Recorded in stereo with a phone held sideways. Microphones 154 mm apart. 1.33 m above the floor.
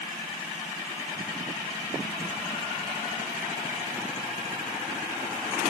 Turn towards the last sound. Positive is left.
No sound to turn to.